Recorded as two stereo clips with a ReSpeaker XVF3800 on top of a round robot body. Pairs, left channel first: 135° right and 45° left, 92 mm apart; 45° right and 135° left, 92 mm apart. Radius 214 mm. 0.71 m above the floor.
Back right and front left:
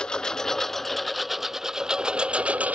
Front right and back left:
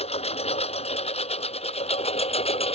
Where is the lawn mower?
55° right; by 2.8 s 30° right.